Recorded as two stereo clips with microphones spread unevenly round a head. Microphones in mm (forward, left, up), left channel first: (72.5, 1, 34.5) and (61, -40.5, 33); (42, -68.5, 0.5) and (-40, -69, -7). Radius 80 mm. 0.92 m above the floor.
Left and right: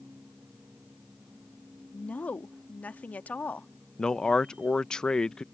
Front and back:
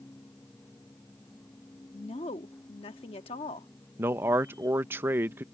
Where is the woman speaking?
20° left.